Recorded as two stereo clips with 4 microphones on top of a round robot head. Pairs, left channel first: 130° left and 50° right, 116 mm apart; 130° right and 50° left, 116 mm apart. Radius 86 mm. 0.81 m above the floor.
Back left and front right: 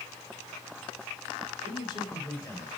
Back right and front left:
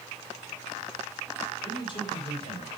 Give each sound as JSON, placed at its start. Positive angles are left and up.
{"t": 1.6, "sound": "a man speaking", "azimuth_deg": 175, "distance_m": 4.0}